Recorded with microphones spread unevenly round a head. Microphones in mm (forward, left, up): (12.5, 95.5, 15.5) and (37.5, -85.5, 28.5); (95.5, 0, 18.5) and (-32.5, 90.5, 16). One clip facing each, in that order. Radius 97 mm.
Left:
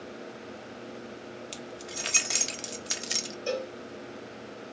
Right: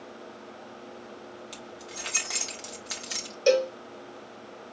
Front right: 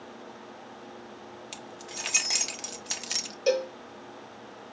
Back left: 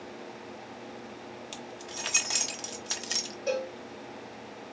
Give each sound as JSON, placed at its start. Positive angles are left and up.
{"t": 1.5, "sound": "keys jangling", "azimuth_deg": 40, "distance_m": 0.7}
{"t": 3.5, "sound": "a cowbell", "azimuth_deg": -70, "distance_m": 0.7}